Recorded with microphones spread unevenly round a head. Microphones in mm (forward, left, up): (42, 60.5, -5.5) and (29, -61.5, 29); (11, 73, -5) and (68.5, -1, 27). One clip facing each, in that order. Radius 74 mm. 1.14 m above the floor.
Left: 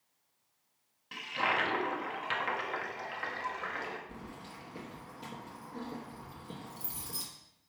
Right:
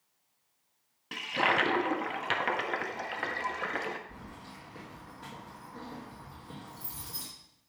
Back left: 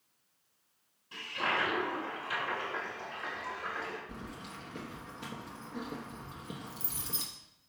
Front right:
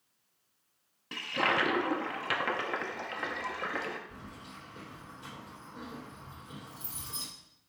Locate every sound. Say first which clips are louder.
1.1 s a toilet flushing: right 4 dB, front right 4 dB; 70° right, 0.8 m
4.1 s keys jangling: left 1 dB, back left 3 dB; 155° left, 1.1 m